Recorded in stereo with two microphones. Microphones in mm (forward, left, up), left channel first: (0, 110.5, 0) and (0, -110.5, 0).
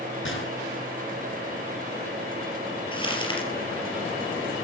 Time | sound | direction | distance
0.2 | a gunshot | 65° left (ahead or behind) | 3.5 m
2.9 | crumpling | 20° left (ahead or behind) | 4.5 m